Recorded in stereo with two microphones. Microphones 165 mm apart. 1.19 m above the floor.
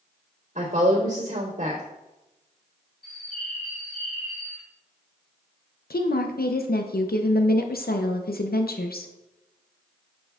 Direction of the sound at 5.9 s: 80° left.